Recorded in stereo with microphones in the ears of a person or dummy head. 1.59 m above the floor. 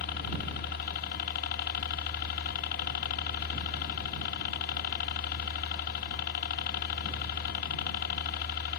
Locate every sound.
0.0 s a helicopter: 55° left (ahead or behind)